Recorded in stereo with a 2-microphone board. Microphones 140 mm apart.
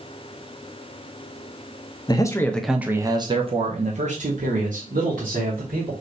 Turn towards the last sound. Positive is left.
turn(degrees=-75)  # may be behind; listen again after turning